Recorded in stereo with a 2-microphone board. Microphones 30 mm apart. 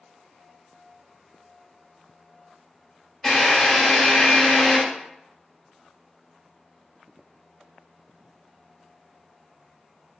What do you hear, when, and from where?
3.2 s a drill: 15° left (ahead or behind), 1.6 m